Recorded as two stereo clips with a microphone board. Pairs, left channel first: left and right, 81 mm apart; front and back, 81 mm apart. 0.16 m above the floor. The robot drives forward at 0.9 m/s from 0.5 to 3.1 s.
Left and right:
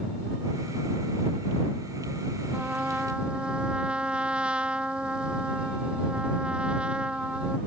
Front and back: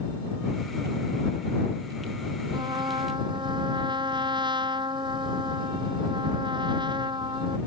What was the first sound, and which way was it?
A trumpet, 165° right.